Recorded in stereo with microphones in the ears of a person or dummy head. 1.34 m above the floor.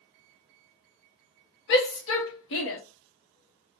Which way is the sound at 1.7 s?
60° left (ahead or behind).